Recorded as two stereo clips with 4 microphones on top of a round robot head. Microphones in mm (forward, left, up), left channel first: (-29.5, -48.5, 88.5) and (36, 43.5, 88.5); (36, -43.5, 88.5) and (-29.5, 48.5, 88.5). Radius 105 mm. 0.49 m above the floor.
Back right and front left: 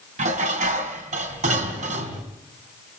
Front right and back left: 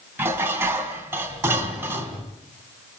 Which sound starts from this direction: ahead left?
Dishes clattering, at 0.2 s.